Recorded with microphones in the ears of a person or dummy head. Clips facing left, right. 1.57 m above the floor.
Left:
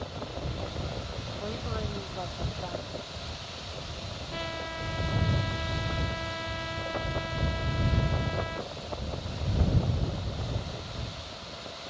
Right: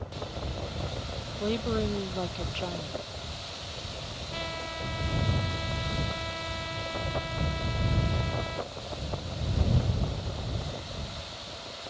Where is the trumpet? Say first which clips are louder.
Left 1 dB; 10° left (ahead or behind).